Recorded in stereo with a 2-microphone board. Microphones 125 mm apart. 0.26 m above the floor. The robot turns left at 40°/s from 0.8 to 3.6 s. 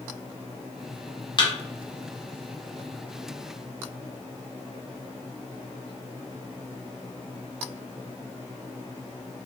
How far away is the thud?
About 0.8 m.